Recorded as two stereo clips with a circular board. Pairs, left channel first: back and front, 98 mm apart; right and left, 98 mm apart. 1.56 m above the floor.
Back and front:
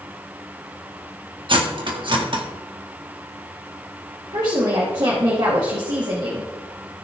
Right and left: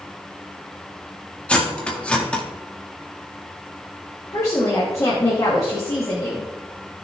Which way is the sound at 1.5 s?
15° right.